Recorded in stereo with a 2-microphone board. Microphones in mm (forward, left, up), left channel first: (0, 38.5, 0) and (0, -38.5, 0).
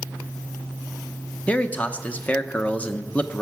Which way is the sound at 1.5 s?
20° left (ahead or behind).